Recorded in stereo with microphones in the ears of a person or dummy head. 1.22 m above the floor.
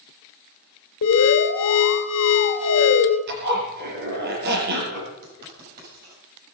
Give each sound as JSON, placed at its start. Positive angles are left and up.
{"t": 1.0, "sound": "an alarm", "side_deg": 70, "distance_m": 2.0}
{"t": 3.3, "sound": "a zipper", "side_deg": -55, "distance_m": 5.0}
{"t": 5.2, "sound": "writing", "side_deg": -50, "distance_m": 8.0}